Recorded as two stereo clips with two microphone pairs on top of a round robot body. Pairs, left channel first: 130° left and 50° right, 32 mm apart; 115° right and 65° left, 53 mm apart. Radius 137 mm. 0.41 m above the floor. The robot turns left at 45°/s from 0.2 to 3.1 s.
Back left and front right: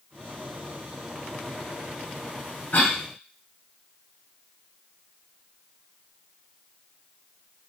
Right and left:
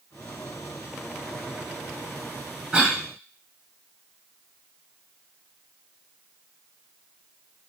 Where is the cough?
155° left, 1.5 m; by 3.0 s 145° left, 1.5 m.